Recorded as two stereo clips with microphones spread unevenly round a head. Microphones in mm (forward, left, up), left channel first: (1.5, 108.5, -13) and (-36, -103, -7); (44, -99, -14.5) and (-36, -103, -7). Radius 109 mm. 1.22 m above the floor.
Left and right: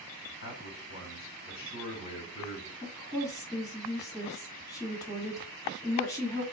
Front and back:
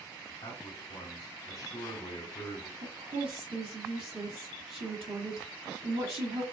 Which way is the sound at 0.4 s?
50° left.